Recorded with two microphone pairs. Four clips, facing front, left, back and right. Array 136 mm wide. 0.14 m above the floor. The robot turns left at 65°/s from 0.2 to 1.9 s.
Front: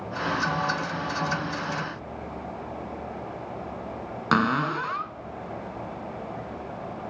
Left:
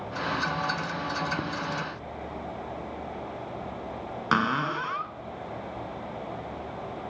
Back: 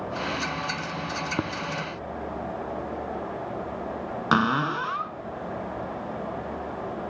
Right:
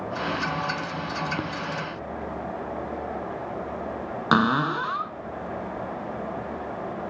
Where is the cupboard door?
105° right, 0.8 m.